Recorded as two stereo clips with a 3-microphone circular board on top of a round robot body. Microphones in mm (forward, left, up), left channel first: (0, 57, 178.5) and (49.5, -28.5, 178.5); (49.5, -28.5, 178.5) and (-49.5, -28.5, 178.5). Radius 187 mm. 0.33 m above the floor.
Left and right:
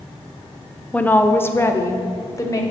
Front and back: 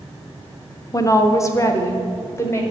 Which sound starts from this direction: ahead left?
A woman speaking, at 0.9 s.